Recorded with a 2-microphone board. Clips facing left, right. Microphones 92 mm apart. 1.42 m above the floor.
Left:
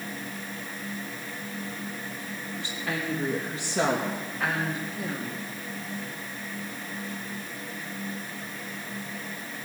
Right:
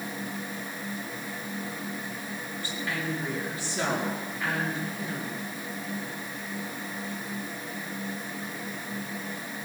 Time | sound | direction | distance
2.6 | a woman speaking | 70° left (ahead or behind) | 2 m